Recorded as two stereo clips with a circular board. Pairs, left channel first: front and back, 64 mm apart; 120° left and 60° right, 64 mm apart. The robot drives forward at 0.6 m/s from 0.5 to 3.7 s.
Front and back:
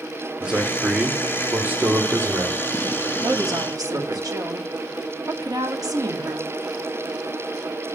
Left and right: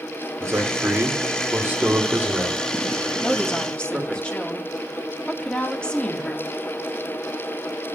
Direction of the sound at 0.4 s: 100° right.